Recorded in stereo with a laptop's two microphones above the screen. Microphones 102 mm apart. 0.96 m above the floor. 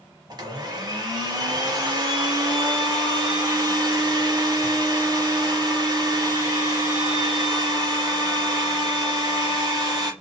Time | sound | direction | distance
0.3 | a blender | 45° right (ahead or behind) | 1.0 m